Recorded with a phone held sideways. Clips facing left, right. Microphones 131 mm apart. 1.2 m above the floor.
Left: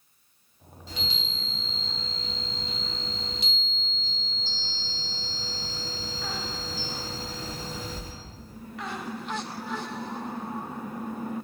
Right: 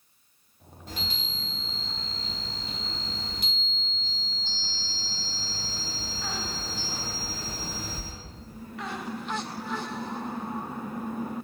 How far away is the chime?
About 0.6 m.